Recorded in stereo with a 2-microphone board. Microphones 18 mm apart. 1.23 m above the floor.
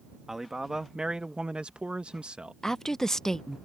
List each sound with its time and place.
0.3 s a man speaking: 20° right (ahead or behind); by 2.5 s 75° right (ahead or behind)
2.6 s a woman speaking: 25° left (ahead or behind)